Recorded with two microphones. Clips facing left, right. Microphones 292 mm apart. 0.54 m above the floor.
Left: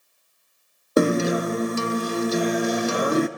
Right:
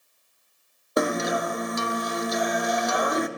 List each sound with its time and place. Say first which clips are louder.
1.0 s a guitar: left 6 dB; 35° left (ahead or behind), 0.5 m